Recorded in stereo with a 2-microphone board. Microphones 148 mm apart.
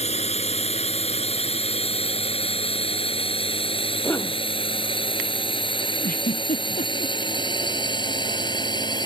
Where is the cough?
15° left (ahead or behind).